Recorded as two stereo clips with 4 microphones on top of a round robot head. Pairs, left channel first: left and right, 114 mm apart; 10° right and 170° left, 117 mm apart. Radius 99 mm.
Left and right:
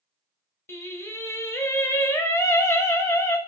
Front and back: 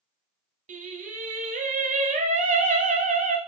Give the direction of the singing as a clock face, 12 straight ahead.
7 o'clock.